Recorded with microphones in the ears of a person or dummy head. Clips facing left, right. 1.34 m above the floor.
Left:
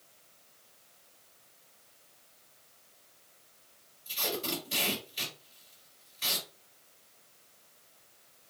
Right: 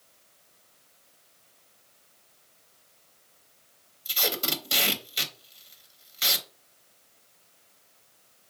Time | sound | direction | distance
4.0 | tape being pulled | 65° right (ahead or behind) | 0.6 m